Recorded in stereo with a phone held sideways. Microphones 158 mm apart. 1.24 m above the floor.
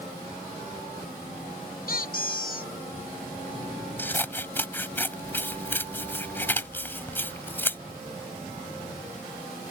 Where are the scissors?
15° left (ahead or behind).